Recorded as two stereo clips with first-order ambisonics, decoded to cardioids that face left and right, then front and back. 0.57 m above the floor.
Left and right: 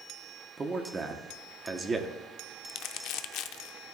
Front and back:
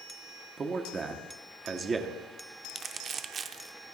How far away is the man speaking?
About 1.0 m.